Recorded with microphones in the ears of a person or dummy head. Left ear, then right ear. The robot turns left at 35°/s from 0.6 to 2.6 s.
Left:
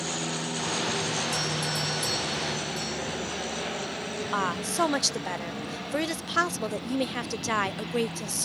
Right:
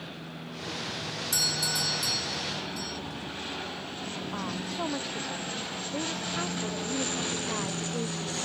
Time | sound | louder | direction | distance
1.3 | a doorbell | right 1 dB | 140° right | ?
4.3 | a woman speaking | left 9 dB | 70° left (ahead or behind) | ?